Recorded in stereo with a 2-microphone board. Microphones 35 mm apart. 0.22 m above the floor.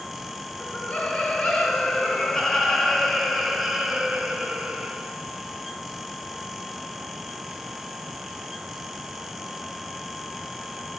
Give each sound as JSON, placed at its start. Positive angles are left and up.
{"t": 0.6, "sound": "laughter", "side_deg": 40, "distance_m": 3.5}